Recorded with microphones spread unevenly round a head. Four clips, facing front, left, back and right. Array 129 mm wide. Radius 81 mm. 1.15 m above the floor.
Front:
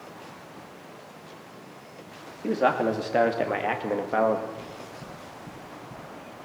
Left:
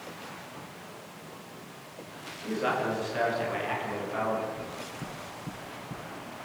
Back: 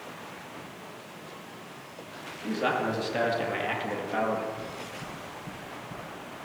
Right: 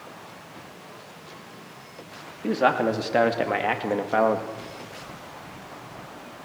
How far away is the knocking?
About 3.5 m.